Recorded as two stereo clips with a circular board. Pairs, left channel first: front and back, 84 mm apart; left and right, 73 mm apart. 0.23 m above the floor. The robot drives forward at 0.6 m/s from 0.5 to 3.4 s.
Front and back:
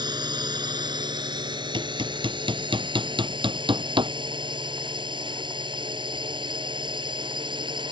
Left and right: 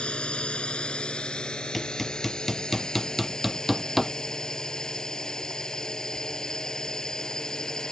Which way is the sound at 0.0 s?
165° left.